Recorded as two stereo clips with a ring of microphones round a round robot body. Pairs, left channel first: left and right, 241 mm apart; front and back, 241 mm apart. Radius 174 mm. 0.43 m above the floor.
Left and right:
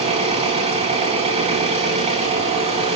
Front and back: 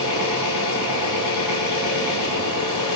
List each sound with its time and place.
0.0 s an engine running: 25° right, 3.5 m